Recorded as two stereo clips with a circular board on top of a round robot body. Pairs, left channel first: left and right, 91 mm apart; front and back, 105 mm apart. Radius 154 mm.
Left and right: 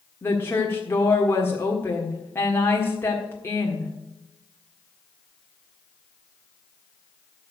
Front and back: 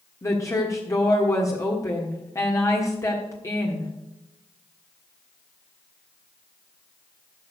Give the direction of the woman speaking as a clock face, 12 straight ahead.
11 o'clock.